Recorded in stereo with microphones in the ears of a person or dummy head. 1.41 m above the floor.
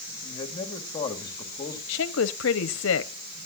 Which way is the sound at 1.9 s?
65° left (ahead or behind).